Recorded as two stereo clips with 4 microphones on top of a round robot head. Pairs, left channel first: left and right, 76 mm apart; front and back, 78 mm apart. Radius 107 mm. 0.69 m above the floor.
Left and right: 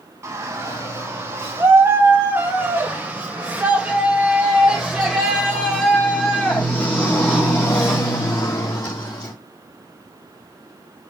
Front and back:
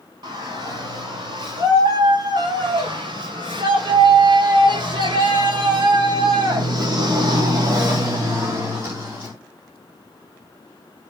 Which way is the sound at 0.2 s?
145° right.